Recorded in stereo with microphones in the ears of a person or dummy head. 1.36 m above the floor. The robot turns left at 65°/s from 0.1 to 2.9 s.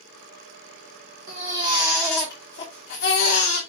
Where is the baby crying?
135° right, 2.5 m; by 3.6 s 120° left, 2.5 m.